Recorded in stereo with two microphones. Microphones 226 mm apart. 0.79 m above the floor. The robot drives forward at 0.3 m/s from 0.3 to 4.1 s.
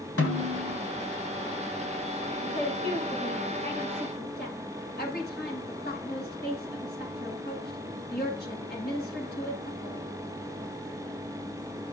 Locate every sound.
0.2 s a snare drum: 85° left, 3 m
2.4 s a woman speaking: 50° left (ahead or behind), 9.5 m